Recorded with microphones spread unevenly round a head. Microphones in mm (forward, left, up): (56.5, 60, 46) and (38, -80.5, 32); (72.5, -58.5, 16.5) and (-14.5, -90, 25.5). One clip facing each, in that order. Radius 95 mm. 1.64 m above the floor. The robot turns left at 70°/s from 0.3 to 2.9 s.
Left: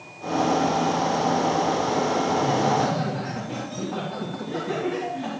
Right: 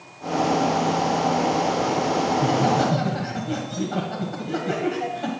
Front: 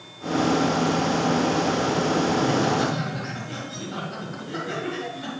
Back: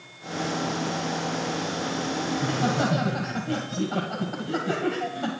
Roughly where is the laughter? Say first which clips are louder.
Right 2 dB, front 4 dB; right.